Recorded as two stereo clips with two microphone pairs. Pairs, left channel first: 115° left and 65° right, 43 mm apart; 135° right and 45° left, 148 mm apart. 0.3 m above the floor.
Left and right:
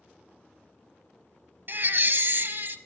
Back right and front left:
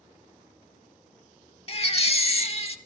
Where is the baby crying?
95° right, 0.6 m.